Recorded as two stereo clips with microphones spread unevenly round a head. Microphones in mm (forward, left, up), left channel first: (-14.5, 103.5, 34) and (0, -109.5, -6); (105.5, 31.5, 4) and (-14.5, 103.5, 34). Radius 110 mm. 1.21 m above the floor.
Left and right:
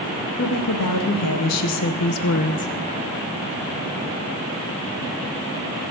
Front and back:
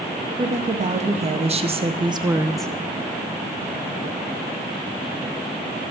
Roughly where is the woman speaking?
Left.